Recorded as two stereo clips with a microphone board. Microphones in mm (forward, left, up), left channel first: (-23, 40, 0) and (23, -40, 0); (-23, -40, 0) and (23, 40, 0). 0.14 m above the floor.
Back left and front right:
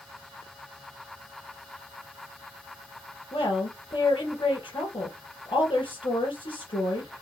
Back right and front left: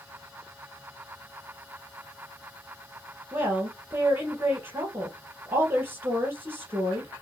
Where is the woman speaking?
125° left, 3.5 m.